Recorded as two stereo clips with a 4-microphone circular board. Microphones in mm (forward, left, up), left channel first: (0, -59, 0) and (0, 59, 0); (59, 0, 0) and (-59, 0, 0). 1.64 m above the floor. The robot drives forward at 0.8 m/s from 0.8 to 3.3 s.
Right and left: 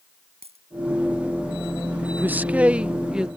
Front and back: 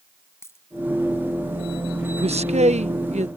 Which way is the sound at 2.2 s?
160° left.